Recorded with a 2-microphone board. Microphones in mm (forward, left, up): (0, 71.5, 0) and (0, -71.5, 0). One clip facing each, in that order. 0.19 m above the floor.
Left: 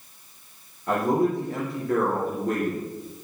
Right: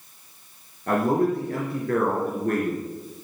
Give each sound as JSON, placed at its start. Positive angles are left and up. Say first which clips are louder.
{"t": 0.9, "sound": "a man speaking", "louder": "right 1 dB", "side_deg": -60, "distance_m": 3.5}